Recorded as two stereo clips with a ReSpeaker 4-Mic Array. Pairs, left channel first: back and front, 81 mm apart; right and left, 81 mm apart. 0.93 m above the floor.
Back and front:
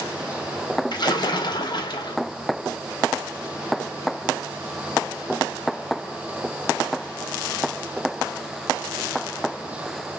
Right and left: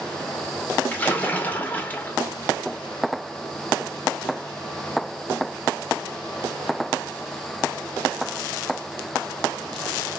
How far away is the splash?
About 0.7 m.